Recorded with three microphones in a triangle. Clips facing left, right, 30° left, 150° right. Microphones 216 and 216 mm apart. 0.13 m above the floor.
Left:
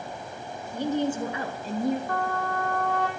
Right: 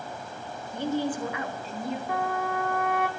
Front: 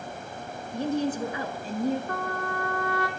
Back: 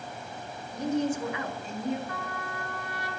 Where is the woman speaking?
20° left, 1.2 m; by 2.0 s 70° left, 1.7 m.